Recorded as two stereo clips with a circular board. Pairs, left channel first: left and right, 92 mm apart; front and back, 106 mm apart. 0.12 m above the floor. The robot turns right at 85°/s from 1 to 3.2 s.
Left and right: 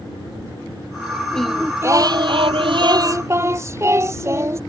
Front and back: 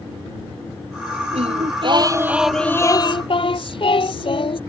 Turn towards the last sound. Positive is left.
turn(degrees=-30)